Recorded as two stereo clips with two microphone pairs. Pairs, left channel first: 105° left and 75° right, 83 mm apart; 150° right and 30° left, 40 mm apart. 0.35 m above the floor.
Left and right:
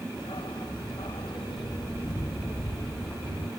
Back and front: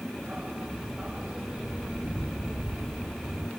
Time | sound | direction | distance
0.2 | a dog barking | 95° left | ?